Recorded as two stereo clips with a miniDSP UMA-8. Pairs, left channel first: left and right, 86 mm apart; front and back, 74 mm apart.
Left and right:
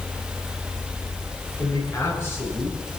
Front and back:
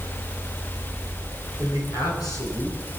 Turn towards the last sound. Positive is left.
turn(degrees=25)